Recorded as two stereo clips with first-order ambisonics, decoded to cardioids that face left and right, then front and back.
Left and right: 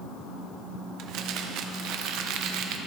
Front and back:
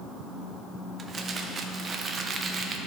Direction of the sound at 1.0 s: 115° right.